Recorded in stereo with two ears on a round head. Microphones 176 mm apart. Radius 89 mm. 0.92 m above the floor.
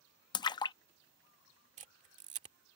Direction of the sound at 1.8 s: 35° right (ahead or behind).